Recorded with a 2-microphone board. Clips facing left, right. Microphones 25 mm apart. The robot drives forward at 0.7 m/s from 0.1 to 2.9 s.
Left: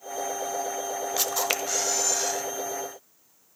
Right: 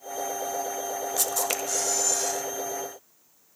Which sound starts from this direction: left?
A camera shutter, at 1.2 s.